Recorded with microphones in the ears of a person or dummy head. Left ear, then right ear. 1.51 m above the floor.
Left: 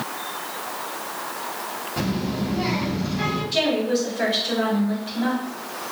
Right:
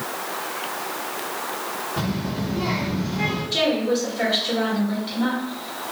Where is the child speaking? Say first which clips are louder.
Left 1 dB; 30° left (ahead or behind), 1.2 m.